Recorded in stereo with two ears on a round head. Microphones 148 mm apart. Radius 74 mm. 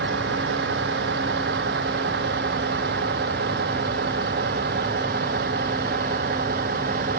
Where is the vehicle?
75° right (ahead or behind); by 7.2 s 55° right (ahead or behind).